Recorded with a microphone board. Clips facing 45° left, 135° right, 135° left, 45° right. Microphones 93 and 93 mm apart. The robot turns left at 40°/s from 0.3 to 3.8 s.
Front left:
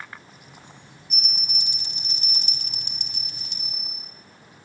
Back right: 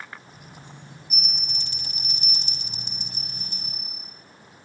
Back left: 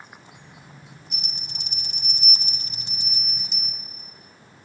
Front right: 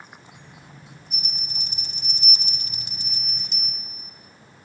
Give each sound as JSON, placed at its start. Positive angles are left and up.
{"t": 1.1, "sound": "a bell", "azimuth_deg": 140, "distance_m": 2.0}